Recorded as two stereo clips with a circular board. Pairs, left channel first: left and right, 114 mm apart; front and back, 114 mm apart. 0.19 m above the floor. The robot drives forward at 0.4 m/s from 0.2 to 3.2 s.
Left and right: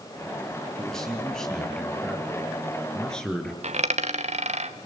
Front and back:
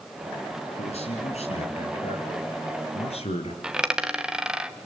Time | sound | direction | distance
0.8 | a man speaking | 5° left | 4 m
3.6 | a dropped coin | 95° right | 1.0 m